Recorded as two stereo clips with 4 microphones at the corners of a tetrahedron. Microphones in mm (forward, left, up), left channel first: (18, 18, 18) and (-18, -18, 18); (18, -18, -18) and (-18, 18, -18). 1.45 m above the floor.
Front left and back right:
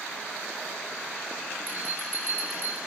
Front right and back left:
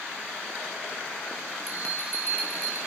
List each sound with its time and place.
1.7 s a bell: 90° right, 3 m